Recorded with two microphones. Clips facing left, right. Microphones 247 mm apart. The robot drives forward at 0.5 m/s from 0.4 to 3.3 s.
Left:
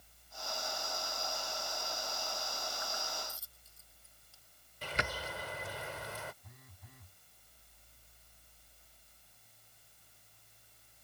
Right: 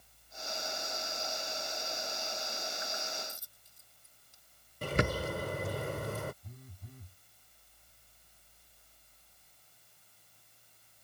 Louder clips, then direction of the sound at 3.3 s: Right 2 dB; 15° right (ahead or behind).